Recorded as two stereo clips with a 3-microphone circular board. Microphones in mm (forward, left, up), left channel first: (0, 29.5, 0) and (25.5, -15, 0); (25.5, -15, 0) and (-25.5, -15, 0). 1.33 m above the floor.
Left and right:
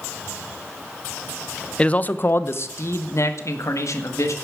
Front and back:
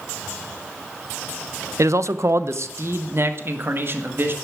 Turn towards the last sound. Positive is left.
turn(degrees=135)